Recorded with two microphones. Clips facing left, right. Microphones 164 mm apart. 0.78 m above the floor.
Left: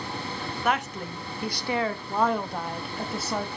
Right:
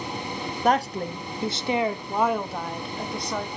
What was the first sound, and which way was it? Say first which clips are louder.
A woman speaking: right 6 dB; 40° right (ahead or behind).